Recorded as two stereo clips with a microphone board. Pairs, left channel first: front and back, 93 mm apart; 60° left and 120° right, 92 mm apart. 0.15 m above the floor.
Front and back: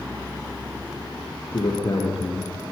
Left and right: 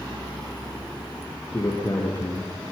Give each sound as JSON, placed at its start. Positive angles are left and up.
{"t": 1.5, "sound": "a man speaking", "azimuth_deg": 0, "distance_m": 4.5}